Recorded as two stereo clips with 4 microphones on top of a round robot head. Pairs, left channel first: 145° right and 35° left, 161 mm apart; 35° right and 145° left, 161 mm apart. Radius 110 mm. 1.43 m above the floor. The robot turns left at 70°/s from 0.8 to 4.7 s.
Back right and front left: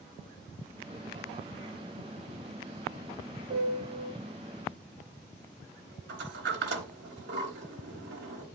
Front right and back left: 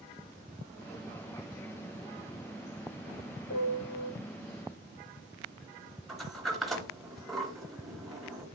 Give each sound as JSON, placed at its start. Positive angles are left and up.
{"t": 3.5, "sound": "a piano", "azimuth_deg": -10, "distance_m": 4.0}
{"t": 6.1, "sound": "a sliding door", "azimuth_deg": 55, "distance_m": 3.0}